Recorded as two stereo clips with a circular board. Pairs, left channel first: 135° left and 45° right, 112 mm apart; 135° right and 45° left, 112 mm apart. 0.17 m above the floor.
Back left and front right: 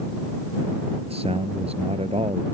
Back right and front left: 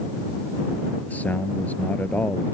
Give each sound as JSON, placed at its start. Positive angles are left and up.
{"t": 1.1, "sound": "a man speaking", "azimuth_deg": -60}